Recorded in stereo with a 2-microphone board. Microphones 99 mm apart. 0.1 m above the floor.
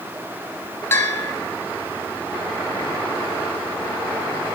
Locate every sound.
0.9 s a bell: 25° left (ahead or behind), 0.6 m